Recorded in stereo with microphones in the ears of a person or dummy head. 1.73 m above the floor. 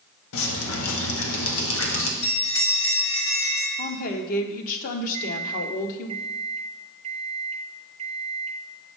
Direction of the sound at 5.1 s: 45° right (ahead or behind).